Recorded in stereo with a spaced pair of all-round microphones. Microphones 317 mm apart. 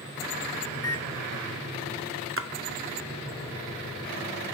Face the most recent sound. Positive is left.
turn(degrees=-40)  # may be behind; listen again after turning